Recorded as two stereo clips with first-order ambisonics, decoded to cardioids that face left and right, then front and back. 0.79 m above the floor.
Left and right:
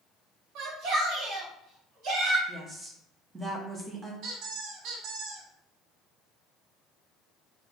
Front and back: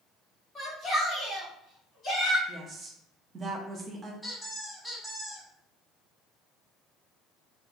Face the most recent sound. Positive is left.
turn(degrees=-85)